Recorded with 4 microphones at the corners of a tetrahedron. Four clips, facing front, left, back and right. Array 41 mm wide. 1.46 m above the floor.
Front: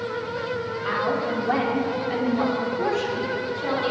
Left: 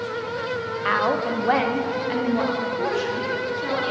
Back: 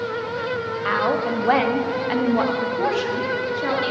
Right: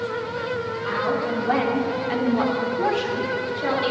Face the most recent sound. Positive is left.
turn(degrees=-150)